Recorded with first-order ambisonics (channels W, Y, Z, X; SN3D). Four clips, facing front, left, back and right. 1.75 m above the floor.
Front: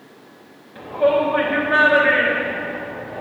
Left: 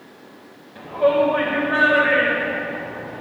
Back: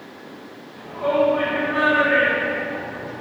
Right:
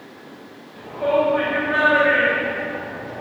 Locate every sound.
0.8 s a shout: 20° left, 1.6 m; by 3.2 s 20° right, 2.5 m